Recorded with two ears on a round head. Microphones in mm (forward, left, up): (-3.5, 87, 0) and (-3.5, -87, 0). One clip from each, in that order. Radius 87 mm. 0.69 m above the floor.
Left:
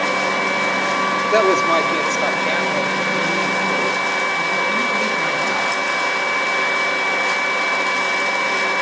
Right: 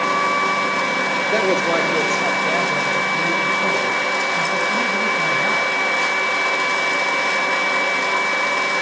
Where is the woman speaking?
20° left (ahead or behind), 2.0 m; by 5.7 s 20° right (ahead or behind), 8 m.